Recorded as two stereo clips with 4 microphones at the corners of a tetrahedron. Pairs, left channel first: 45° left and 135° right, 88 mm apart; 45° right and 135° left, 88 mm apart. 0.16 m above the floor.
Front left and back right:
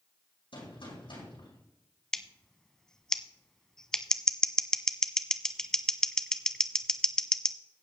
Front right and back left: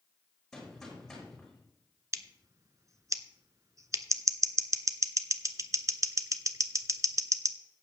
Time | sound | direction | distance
0.5 | a gunshot | 40° left | 6 m
2.1 | scissors | 125° left | 0.6 m